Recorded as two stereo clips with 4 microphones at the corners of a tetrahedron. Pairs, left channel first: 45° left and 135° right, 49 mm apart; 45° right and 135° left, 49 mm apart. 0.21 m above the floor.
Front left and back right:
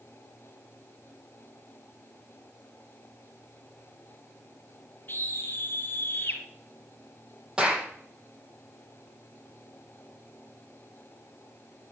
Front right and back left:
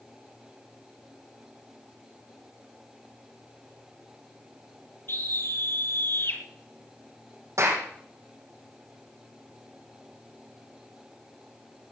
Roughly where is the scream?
Ahead.